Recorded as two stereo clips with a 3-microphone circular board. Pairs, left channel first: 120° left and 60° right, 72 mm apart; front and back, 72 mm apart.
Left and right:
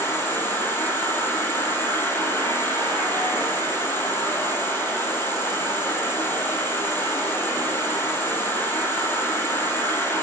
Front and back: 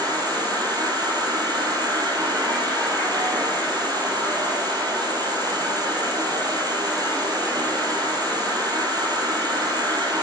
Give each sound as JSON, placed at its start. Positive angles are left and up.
{"t": 0.0, "sound": "an insect", "azimuth_deg": 175, "distance_m": 3.5}